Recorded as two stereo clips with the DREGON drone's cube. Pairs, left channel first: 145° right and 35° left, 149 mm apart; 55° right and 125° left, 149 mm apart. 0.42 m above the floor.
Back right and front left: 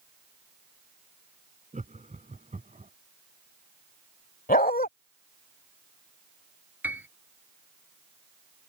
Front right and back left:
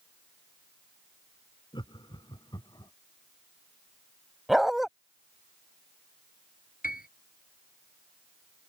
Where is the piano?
45° right.